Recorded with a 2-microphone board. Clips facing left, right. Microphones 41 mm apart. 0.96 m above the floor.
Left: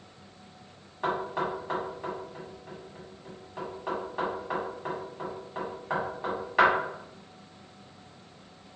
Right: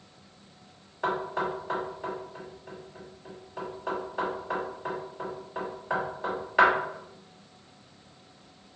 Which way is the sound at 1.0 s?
Centre (ahead or behind).